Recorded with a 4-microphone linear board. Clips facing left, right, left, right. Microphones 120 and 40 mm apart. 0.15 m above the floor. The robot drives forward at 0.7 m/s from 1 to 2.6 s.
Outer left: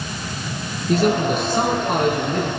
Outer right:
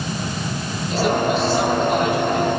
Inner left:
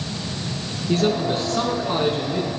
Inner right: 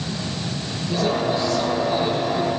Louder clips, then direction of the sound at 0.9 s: Outer left 1 dB, inner left 1 dB; 55° left (ahead or behind).